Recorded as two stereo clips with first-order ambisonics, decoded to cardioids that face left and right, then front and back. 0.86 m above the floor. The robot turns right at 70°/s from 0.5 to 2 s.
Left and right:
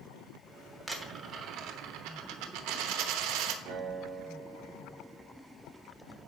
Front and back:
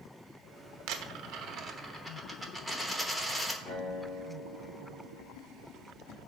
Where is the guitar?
90° right, 3 m.